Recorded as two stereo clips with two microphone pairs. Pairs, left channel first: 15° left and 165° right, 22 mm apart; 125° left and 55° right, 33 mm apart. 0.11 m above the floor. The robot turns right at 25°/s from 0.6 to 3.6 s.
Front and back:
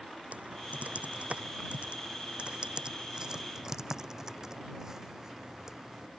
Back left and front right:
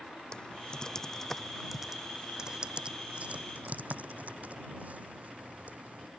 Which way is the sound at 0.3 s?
170° right.